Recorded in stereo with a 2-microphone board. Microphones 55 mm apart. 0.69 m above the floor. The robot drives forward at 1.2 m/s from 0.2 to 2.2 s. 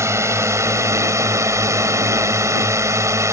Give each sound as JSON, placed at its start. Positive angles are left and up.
{"t": 0.0, "sound": "a drone", "side_deg": -65}